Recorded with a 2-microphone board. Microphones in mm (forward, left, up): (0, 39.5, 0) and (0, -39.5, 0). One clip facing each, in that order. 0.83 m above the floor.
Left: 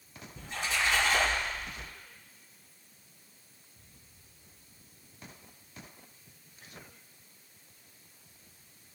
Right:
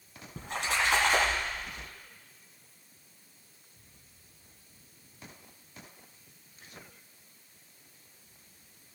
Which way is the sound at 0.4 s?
70° right (ahead or behind).